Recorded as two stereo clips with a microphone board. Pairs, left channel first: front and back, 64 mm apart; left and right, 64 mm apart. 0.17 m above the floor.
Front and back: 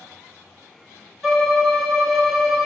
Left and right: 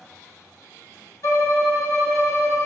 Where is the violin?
95° left, 0.8 m.